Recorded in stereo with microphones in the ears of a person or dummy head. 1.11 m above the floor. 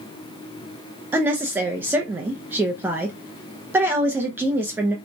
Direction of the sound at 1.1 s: 10° right (ahead or behind).